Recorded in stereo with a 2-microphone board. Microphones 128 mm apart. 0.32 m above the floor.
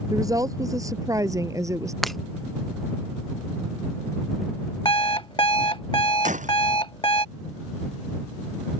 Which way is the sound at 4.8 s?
40° left (ahead or behind).